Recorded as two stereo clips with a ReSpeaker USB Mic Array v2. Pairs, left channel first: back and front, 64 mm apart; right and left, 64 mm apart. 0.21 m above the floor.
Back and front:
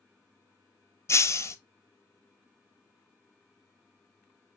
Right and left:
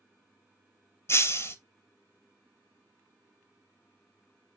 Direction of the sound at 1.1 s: 135° right.